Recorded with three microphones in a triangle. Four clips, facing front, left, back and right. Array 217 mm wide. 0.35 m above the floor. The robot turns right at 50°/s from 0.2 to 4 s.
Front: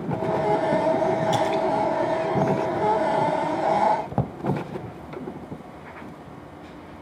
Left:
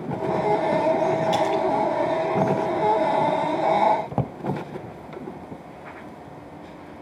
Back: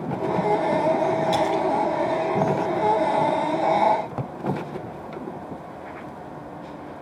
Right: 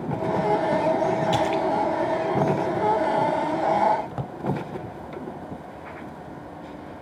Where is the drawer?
50° left, 0.9 m.